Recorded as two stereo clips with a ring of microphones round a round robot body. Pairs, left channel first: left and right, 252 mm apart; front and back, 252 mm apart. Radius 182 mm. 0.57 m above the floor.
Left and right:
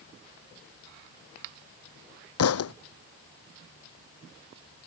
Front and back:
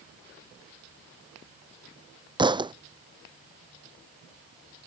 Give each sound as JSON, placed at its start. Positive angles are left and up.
{"t": 2.4, "sound": "a thud", "azimuth_deg": 110}